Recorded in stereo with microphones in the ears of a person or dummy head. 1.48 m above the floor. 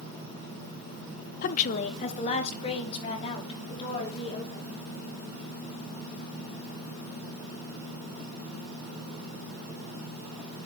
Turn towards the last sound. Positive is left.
turn(degrees=30)  # may be behind; listen again after turning